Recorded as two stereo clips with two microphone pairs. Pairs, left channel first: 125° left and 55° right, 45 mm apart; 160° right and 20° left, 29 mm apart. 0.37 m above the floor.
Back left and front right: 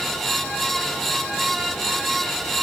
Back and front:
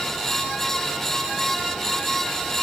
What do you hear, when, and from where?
Only background noise.